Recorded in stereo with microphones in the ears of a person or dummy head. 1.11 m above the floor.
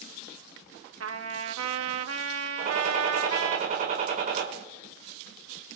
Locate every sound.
1.0 s a trumpet: 75° right (ahead or behind), 1.1 m
2.6 s a gunshot: 45° right (ahead or behind), 5.5 m